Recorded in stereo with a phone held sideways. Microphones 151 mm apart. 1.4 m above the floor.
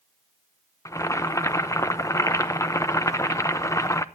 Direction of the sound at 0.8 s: 20° left (ahead or behind).